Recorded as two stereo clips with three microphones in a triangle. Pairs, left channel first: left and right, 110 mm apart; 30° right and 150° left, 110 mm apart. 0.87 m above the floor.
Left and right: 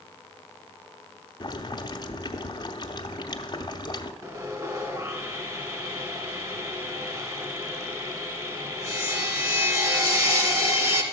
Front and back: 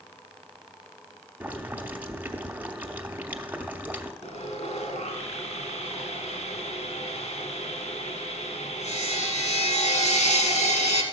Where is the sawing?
30° right, 1.9 m.